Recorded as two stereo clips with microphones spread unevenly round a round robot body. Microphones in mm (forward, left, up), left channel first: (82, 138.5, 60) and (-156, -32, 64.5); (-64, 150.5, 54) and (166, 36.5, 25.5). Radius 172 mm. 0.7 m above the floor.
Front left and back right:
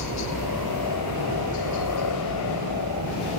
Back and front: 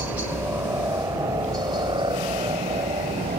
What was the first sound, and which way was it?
A helicopter, 55° left.